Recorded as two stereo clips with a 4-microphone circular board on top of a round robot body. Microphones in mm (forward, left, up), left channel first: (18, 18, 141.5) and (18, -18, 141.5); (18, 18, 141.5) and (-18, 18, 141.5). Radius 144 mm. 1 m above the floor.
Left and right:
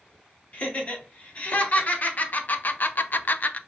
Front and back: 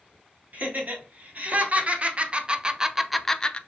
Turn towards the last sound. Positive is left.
turn(degrees=55)